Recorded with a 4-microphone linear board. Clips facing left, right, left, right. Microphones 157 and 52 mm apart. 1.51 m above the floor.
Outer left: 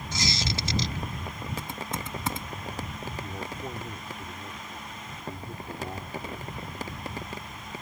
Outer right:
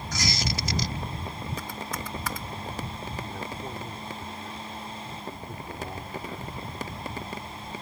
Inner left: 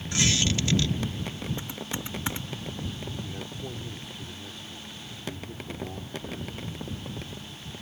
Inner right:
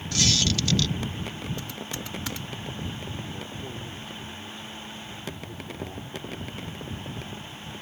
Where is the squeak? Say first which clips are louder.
Even, even; 25° left (ahead or behind).